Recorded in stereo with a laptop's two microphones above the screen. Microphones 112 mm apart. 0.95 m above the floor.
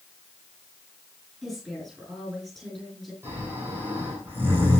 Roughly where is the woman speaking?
Centre.